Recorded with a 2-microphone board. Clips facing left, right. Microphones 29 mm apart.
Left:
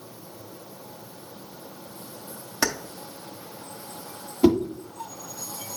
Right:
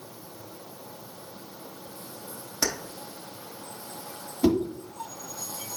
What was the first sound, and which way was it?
Keys jangling, 30° left (ahead or behind).